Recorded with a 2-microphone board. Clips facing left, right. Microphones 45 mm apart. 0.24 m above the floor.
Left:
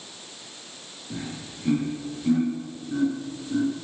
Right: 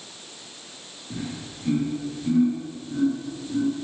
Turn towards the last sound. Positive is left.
turn(degrees=30)  # may be behind; listen again after turning